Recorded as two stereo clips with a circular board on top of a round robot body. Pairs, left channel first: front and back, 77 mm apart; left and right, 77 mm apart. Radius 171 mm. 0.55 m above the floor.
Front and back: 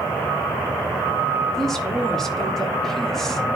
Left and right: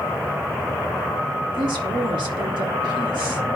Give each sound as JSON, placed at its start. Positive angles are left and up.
{"t": 1.5, "sound": "a woman speaking", "azimuth_deg": -85, "distance_m": 2.0}